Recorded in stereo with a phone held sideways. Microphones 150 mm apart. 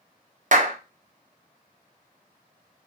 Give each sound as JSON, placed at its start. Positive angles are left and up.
{"t": 0.5, "sound": "a clap", "side_deg": -60, "distance_m": 0.6}